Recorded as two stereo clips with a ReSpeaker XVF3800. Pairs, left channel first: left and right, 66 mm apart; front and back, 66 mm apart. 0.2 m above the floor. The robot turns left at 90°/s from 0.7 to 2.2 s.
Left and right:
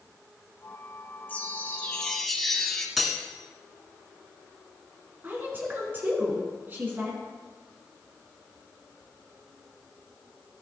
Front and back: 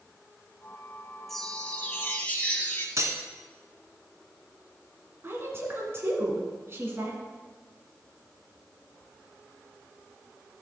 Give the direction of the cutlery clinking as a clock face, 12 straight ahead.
6 o'clock.